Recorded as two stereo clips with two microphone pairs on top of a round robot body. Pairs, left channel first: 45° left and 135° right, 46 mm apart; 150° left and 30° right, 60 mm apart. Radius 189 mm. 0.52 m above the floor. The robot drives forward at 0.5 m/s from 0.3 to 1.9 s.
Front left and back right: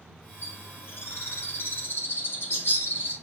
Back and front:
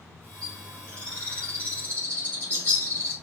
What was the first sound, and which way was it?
A bird, 70° left.